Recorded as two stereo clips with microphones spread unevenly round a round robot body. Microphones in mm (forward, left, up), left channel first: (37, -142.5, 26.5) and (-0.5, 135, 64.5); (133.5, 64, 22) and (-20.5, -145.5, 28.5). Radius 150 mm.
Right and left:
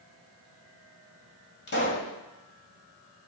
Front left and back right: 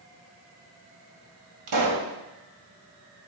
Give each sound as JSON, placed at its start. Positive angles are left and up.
{"t": 1.7, "sound": "a pop", "azimuth_deg": -135, "distance_m": 2.0}